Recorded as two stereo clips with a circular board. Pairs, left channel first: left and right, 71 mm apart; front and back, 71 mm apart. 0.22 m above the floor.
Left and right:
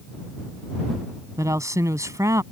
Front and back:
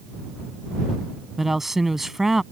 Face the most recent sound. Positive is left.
turn(degrees=-95)